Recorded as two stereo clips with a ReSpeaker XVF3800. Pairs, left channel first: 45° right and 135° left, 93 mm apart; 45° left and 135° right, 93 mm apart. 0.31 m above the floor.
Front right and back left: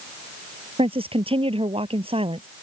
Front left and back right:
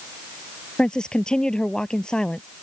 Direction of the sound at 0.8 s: 125° left.